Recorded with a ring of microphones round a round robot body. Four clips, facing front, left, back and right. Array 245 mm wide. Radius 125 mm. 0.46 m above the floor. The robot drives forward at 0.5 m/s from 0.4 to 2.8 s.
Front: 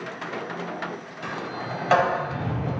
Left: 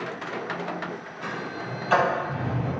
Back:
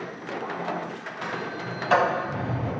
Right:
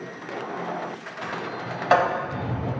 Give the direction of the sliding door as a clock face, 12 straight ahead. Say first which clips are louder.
Right 2 dB, even; 2 o'clock.